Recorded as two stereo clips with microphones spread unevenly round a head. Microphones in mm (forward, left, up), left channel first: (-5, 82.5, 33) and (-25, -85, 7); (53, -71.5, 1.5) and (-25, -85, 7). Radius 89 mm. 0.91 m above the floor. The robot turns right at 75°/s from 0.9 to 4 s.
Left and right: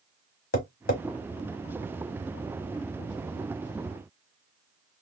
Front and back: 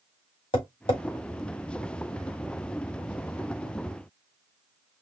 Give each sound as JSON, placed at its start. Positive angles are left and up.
{"t": 0.5, "sound": "tapping", "azimuth_deg": 45, "distance_m": 1.1}